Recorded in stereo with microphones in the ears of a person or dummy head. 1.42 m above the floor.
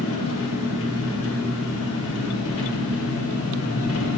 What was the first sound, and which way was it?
An engine running, 75° left (ahead or behind).